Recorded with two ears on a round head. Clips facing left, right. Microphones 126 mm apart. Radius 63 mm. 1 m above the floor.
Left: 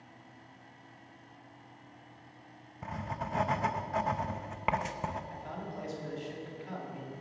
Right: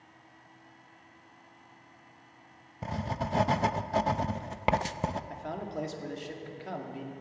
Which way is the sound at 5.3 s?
60° right (ahead or behind).